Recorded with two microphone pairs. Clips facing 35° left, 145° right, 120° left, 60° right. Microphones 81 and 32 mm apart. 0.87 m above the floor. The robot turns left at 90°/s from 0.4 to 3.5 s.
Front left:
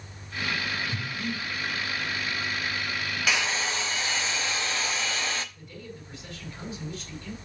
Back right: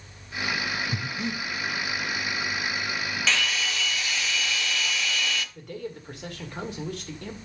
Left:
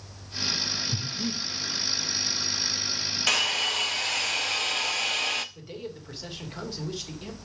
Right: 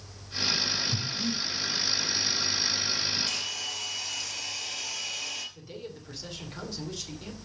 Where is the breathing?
165° right, 0.8 m; by 1.4 s 155° left, 0.8 m.